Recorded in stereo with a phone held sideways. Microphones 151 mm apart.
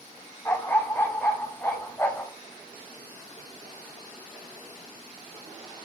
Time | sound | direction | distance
0.5 | a dog barking | 15° left (ahead or behind) | 3.5 m